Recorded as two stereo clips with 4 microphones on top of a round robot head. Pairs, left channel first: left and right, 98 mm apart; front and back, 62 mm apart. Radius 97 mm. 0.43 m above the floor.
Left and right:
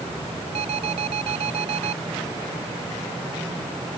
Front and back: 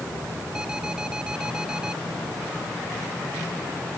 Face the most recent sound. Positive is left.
turn(degrees=-105)